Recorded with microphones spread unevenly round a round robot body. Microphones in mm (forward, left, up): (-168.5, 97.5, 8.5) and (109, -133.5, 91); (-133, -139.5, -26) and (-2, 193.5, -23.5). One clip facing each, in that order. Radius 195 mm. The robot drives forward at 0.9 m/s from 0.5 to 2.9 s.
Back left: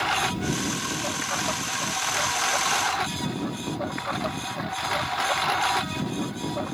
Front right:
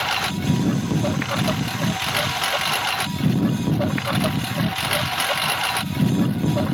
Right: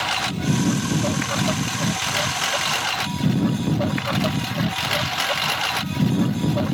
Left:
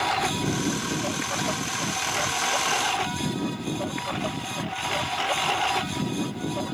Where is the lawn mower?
65° right; by 6.8 s 70° right.